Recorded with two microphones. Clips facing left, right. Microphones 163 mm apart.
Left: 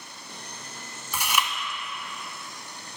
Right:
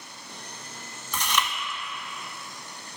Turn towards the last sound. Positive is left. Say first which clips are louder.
# even
turn(degrees=10)  # may be behind; listen again after turning